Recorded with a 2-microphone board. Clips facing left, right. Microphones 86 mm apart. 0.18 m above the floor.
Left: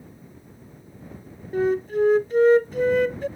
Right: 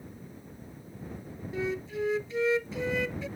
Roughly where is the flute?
Left.